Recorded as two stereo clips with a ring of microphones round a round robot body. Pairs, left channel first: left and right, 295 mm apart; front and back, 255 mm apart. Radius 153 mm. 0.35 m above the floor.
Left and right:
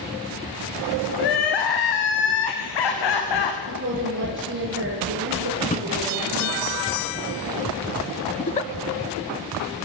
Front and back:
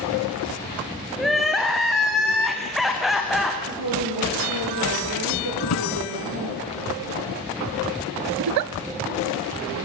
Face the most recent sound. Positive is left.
turn(degrees=160)